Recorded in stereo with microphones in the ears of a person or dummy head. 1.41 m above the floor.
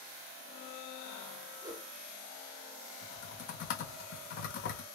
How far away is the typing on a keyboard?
About 1.4 m.